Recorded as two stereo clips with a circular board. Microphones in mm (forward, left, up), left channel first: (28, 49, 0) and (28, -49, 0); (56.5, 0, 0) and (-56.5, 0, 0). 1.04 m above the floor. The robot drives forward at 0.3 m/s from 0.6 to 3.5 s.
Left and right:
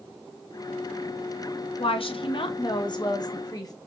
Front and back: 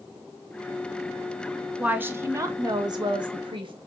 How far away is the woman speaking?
About 0.6 m.